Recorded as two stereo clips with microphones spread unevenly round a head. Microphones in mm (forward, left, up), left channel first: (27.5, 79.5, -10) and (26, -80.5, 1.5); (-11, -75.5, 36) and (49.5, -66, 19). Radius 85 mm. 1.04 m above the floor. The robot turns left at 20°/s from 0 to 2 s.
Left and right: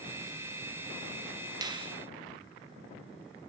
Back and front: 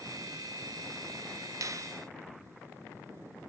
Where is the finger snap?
25° right, 0.8 m; by 1.9 s 30° right, 0.8 m.